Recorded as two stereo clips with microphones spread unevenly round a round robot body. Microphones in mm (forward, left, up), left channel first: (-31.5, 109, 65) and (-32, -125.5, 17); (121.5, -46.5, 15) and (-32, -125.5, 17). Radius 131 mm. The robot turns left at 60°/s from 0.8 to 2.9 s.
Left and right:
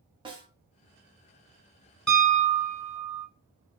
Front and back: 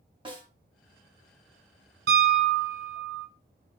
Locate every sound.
0.2 s a snare drum: 120° right, 0.9 m
2.1 s a piano: 175° left, 0.9 m; by 3.3 s 125° left, 0.9 m